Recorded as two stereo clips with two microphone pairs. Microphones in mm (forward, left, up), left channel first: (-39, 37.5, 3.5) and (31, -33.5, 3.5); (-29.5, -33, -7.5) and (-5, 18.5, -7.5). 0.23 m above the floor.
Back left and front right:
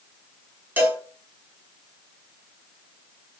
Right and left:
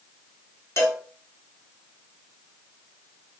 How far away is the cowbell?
About 0.8 m.